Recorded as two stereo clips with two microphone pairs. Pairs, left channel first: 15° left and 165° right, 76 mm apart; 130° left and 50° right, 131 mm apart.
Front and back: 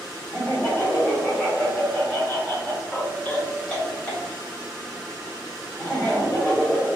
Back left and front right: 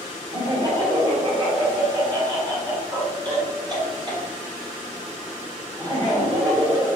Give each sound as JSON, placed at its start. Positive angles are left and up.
{"t": 0.3, "sound": "laughter", "azimuth_deg": -30, "distance_m": 1.6}